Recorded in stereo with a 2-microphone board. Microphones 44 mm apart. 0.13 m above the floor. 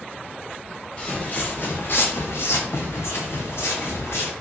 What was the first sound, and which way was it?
Footsteps, 30° left (ahead or behind).